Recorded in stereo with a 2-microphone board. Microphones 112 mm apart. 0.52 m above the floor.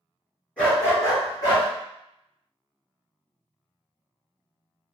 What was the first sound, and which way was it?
A dog barking, 10° left (ahead or behind).